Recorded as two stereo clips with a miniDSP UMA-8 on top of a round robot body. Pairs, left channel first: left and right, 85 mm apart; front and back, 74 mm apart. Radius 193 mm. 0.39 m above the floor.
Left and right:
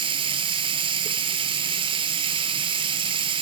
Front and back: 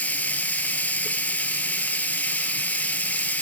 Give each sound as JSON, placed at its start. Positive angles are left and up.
{"t": 0.0, "sound": "running water", "azimuth_deg": -70, "distance_m": 0.8}